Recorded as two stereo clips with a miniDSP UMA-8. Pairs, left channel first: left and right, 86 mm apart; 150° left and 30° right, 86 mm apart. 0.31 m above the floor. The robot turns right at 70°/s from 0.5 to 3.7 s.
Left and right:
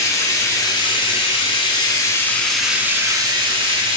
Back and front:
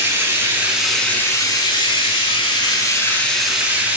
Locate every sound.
0.0 s running water: 35° left, 0.7 m; by 4.0 s 100° right, 0.7 m